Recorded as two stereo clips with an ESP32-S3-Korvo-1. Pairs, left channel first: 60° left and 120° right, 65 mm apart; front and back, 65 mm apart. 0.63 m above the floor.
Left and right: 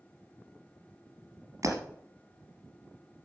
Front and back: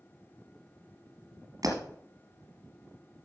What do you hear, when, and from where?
1.6 s breaking glass: 160° right, 2.5 m